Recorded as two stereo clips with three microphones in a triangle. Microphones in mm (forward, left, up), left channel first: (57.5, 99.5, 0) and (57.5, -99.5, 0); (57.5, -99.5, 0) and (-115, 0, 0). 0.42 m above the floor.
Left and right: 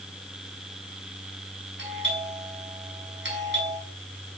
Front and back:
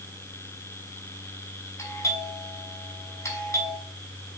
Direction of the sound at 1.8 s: 105° right.